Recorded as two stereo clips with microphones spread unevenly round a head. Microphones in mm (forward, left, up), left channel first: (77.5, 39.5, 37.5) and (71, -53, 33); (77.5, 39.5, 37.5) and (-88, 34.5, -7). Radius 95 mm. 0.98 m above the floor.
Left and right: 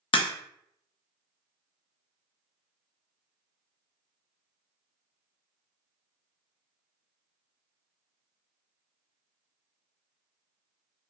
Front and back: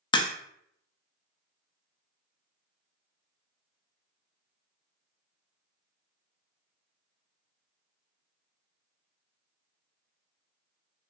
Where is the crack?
60° left, 0.6 m.